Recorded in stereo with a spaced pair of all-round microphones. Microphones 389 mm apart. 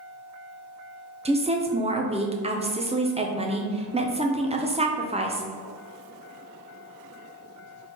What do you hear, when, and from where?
1.2 s a woman speaking: 15° right (ahead or behind), 0.5 m